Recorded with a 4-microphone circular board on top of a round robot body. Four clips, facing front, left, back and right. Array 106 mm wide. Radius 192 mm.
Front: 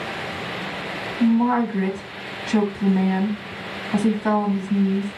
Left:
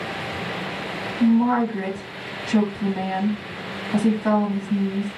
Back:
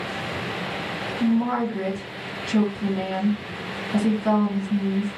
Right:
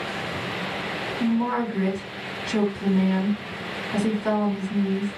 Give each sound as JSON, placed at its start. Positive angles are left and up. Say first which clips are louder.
{"t": 1.2, "sound": "a woman speaking", "louder": "left 6 dB, front 4 dB", "azimuth_deg": 20, "distance_m": 1.7}